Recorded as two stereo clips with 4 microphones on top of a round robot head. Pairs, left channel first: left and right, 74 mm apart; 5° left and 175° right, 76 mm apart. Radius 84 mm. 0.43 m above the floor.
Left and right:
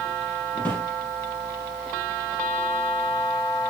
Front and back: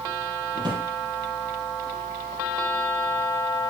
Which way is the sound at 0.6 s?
160° left.